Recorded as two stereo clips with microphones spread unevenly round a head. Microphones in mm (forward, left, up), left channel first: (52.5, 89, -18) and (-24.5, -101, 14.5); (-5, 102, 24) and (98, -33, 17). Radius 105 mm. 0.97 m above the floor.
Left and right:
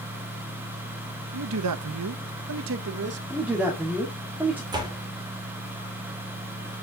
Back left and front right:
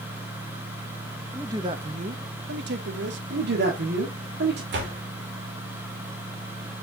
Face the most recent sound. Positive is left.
turn(degrees=-40)